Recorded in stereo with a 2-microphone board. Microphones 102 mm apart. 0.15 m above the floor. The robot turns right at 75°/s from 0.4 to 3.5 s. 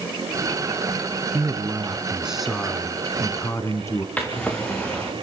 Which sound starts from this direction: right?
A man speaking, at 1.3 s.